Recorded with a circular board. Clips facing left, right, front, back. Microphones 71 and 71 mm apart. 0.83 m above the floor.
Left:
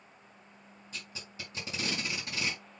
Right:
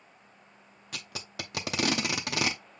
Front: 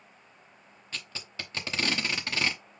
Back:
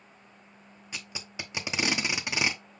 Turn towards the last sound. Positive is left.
turn(degrees=-105)